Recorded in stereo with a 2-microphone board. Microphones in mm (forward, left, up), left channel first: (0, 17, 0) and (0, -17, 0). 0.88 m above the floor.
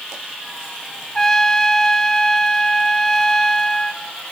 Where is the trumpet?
15° left (ahead or behind), 1.6 m.